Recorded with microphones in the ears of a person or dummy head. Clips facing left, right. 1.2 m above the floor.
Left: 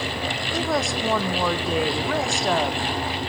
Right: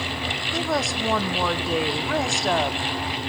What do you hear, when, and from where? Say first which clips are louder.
0.5 s a woman speaking: left 1 dB; centre (ahead or behind), 0.6 m